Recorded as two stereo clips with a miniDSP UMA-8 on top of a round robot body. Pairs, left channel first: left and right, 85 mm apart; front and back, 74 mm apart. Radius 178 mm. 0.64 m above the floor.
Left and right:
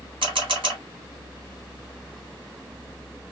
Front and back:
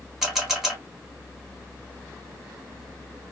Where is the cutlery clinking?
I don't hear cutlery clinking.